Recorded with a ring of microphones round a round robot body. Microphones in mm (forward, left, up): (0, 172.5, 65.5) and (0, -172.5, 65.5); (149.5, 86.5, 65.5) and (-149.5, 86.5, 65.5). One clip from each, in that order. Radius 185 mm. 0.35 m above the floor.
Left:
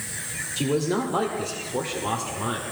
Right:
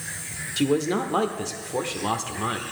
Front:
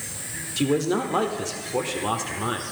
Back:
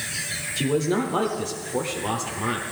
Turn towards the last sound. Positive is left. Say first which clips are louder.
# right 2 dB, front 1 dB
turn(degrees=-55)